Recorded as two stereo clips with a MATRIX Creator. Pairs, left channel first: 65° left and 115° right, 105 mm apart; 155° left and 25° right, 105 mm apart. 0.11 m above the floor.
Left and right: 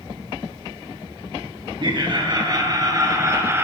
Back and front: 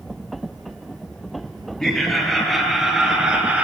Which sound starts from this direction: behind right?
Laughter, at 1.8 s.